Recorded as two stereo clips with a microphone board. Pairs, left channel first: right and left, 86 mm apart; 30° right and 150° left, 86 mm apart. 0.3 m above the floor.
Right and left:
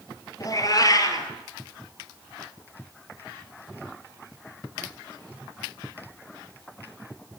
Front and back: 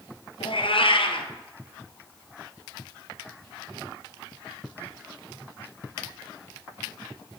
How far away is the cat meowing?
About 1.6 m.